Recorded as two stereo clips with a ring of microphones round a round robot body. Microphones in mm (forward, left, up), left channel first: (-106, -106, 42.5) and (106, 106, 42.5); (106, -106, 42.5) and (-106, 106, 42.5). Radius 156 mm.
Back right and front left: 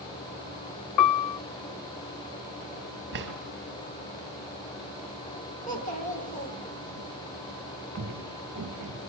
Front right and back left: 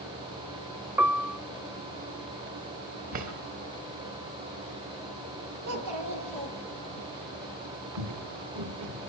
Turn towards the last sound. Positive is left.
turn(degrees=100)